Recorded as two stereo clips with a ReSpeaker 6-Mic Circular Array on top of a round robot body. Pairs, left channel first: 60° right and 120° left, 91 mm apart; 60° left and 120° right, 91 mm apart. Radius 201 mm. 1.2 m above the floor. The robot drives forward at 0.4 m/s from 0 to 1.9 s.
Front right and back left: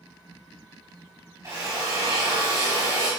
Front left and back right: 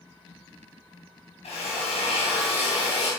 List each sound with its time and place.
1.4 s a drill: 55° left, 3 m; by 3.1 s 60° left, 3 m